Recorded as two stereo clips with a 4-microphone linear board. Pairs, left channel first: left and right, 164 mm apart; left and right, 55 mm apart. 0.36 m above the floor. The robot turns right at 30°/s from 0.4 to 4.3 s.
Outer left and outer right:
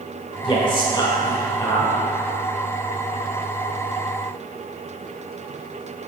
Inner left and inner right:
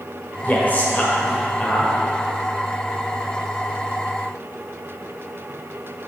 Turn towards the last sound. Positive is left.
turn(degrees=-145)